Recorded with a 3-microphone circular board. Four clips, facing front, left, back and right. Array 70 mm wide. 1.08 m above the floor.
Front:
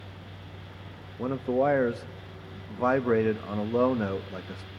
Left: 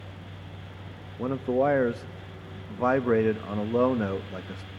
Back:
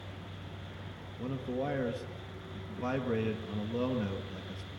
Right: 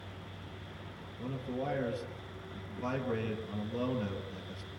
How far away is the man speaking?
About 1.3 m.